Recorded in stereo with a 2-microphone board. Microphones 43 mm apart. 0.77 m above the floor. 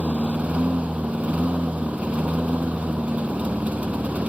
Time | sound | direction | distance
0.0 | a lawn mower | 30° right (ahead or behind) | ?